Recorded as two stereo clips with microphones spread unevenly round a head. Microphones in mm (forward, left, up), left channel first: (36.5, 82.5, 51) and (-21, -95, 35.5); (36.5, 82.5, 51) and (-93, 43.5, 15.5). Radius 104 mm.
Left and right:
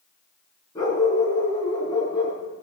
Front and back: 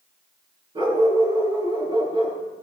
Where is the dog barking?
145° left, 8.5 m.